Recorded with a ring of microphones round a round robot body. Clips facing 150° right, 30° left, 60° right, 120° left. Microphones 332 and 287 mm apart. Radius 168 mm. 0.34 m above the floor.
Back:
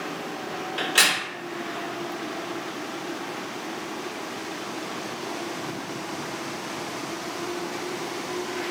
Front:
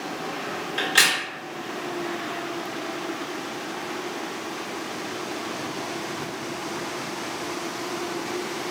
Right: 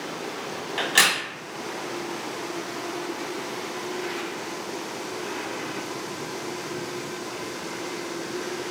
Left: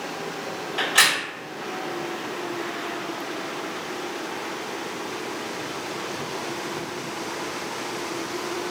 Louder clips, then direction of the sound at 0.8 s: Back 1 dB, right 2 dB; 45° right.